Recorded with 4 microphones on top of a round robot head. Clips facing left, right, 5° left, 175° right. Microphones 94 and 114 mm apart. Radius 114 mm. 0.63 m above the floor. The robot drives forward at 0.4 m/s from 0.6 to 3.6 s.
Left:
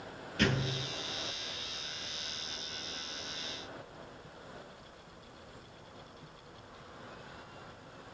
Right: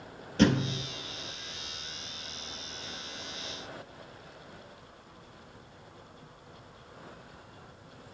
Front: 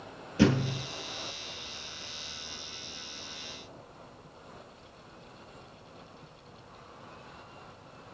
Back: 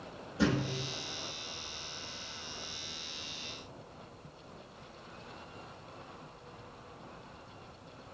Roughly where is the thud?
Ahead right.